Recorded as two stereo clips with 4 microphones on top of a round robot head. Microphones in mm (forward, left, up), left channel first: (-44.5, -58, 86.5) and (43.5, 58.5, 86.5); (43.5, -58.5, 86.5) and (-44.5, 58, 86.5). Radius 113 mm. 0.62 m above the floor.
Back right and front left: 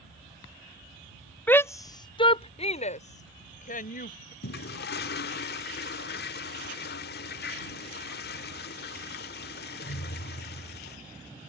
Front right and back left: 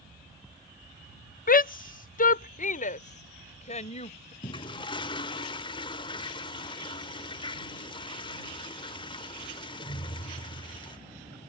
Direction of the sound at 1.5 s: 50° right.